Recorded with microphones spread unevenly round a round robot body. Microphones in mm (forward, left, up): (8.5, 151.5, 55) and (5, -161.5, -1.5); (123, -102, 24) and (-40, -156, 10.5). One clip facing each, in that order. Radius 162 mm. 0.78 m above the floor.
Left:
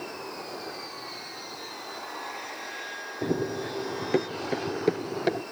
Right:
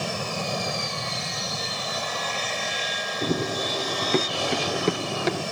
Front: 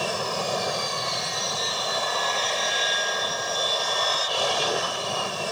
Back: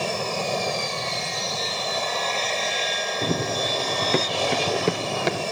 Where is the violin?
No violin in this recording.